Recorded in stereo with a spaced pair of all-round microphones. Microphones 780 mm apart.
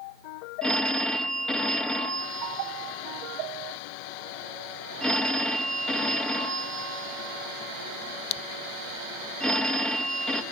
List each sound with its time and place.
0.6 s a phone ringing: centre (ahead or behind), 1.0 m